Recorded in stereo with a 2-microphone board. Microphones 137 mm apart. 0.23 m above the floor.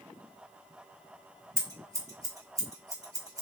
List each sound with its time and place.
1.6 s scissors: 25° right (ahead or behind), 1.2 m